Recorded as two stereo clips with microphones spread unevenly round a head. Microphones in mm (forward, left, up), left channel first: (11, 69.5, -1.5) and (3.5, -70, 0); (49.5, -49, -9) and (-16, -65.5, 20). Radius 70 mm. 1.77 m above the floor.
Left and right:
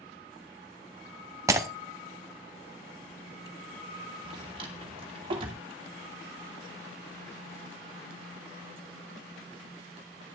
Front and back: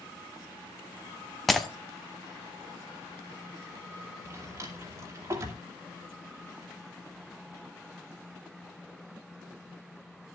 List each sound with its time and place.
1.5 s breaking glass: 130° right, 1.2 m
4.2 s a drawer: 145° right, 2.5 m